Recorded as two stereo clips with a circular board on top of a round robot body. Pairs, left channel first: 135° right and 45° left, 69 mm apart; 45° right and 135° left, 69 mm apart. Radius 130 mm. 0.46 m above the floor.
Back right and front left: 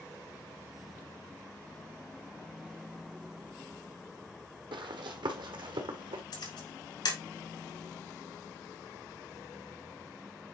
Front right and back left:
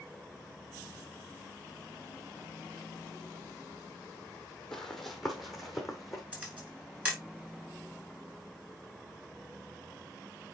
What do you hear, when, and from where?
4.7 s running footsteps: 40° left, 1.0 m; by 6.2 s 50° left, 1.9 m
6.3 s a camera shutter: 155° right, 5.5 m